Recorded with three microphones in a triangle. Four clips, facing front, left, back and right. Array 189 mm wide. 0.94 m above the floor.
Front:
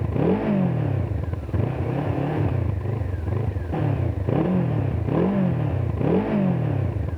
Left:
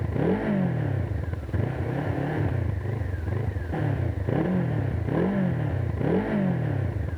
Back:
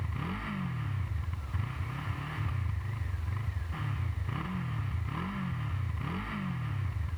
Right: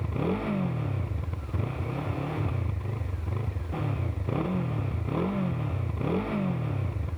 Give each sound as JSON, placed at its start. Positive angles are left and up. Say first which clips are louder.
{"t": 0.0, "sound": "a motorcycle", "louder": "left 4 dB, front 17 dB", "azimuth_deg": 15}